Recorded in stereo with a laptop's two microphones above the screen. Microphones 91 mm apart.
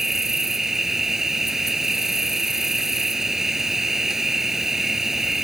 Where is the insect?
5° right (ahead or behind).